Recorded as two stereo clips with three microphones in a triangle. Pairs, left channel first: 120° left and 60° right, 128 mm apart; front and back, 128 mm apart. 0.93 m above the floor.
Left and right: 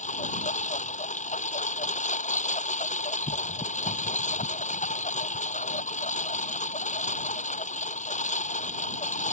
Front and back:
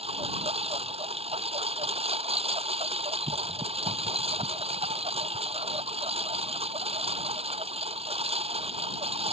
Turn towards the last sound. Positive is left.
turn(degrees=140)